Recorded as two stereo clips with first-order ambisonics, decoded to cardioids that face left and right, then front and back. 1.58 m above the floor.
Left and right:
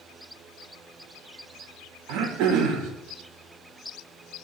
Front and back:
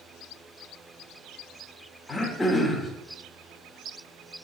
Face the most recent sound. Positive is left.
turn(degrees=-80)